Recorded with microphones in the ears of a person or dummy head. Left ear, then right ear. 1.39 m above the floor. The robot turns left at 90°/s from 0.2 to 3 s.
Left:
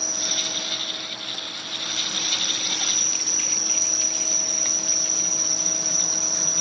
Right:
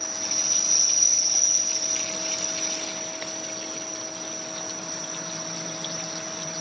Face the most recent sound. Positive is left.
turn(degrees=120)